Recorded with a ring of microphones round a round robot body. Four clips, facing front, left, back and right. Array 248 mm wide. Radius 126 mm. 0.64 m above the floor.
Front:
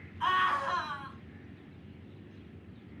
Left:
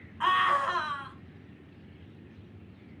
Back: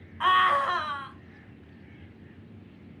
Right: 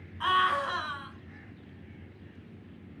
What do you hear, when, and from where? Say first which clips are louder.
0.2 s a scream: left 1 dB, back 6 dB; 165° left, 4 m